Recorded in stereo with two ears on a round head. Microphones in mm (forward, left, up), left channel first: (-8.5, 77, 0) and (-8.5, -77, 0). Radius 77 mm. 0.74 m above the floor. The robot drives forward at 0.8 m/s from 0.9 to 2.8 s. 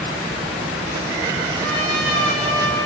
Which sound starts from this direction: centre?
A trumpet, at 1.6 s.